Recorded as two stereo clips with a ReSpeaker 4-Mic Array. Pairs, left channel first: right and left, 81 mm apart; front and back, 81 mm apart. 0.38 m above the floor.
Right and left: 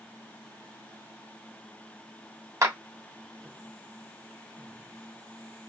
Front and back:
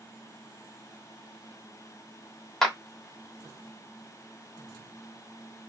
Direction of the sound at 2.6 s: 85° left.